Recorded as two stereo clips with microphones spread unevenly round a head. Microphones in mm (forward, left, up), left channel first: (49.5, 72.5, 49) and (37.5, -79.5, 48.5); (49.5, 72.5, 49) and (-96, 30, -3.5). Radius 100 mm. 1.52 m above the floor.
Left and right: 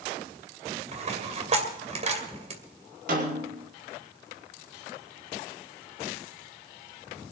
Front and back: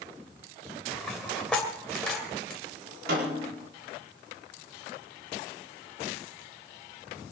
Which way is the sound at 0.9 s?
55° right.